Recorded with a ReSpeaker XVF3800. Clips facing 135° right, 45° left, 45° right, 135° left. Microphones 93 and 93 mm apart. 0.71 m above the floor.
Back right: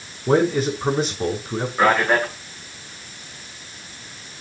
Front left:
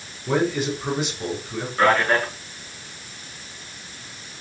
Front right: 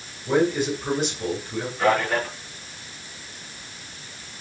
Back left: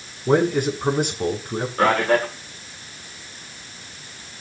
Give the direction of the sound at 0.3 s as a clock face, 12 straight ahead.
6 o'clock.